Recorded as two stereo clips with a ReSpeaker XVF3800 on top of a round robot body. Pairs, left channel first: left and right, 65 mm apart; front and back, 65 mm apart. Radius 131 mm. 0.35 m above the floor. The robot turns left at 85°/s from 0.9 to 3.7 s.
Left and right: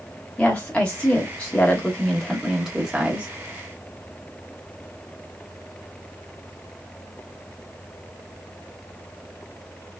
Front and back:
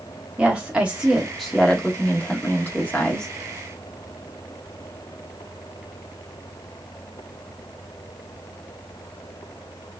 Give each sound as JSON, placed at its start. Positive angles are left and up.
{"t": 0.4, "sound": "a woman speaking", "azimuth_deg": 135, "distance_m": 1.4}